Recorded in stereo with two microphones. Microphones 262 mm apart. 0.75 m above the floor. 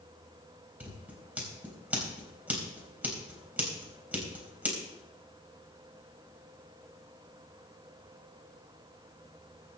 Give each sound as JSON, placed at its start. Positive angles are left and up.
{"t": 0.8, "sound": "scissors", "side_deg": -5, "distance_m": 3.5}